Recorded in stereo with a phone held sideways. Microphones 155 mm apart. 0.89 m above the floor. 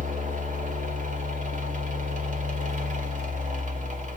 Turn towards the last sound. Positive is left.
turn(degrees=-50)  # may be behind; listen again after turning